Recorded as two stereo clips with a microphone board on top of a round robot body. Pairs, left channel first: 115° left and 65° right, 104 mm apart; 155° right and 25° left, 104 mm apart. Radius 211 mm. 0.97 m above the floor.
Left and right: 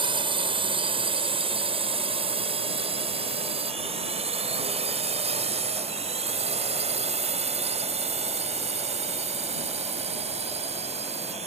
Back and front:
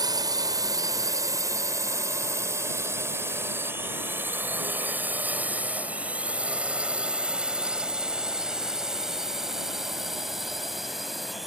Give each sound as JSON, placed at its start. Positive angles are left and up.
{"t": 0.0, "sound": "a drone", "azimuth_deg": -30}